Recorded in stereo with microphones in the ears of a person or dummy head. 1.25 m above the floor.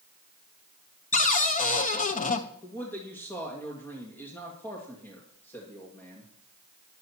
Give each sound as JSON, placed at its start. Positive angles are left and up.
{"t": 1.1, "sound": "a cupboard door", "side_deg": 35, "distance_m": 0.9}
{"t": 2.6, "sound": "a man speaking", "side_deg": 15, "distance_m": 1.9}